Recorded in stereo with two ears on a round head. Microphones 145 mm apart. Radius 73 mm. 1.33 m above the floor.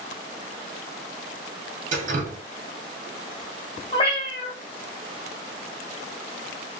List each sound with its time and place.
1.9 s dripping: 50° right (ahead or behind), 0.9 m
3.9 s a cat meowing: 30° left (ahead or behind), 1.3 m